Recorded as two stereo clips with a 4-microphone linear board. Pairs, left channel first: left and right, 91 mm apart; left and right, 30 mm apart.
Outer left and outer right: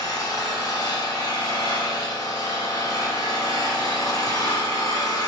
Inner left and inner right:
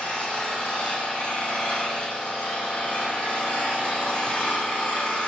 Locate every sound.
0.0 s an engine running: 45° left (ahead or behind), 1.9 m